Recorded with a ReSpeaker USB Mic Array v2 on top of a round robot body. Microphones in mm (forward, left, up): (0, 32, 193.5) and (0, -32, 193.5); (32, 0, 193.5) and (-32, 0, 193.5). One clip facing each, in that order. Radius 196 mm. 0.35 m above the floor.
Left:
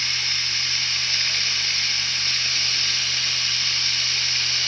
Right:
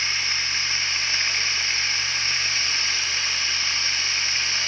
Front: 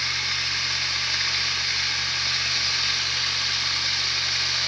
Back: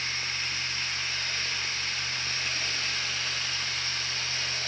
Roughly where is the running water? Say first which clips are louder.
Right 2 dB, front 5 dB; ahead.